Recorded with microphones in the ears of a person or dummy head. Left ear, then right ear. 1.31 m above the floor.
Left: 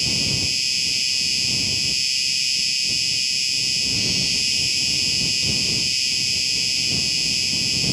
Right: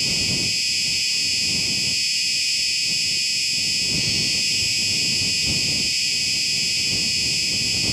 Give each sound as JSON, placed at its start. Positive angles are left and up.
{"t": 0.0, "sound": "an insect", "side_deg": -10}